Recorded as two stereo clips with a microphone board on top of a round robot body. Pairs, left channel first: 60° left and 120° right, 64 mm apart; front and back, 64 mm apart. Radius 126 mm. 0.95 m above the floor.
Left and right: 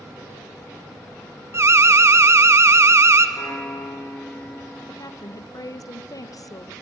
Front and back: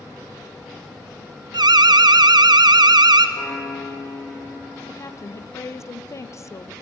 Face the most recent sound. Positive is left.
turn(degrees=40)